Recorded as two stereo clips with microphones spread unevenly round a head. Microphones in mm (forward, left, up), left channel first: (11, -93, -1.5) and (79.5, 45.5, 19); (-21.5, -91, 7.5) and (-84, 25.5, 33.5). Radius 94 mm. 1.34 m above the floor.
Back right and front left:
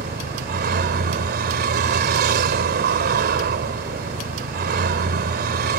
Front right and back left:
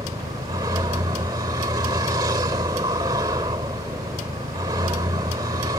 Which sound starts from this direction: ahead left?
A vehicle, at 0.0 s.